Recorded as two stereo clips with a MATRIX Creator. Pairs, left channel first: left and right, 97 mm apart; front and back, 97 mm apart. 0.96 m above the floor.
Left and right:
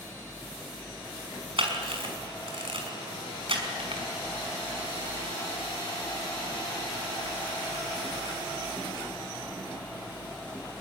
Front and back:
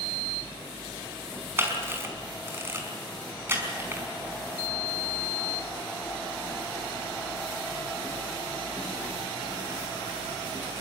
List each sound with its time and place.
1.6 s a camera shutter: 115° right, 5.5 m